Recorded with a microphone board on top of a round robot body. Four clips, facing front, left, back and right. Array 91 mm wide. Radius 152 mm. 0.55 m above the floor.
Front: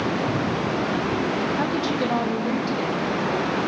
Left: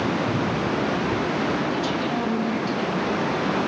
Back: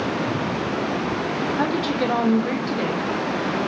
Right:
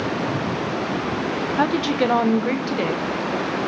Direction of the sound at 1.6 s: 100° right.